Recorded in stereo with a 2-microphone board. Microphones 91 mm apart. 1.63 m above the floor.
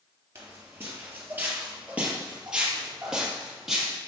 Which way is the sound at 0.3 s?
30° right (ahead or behind).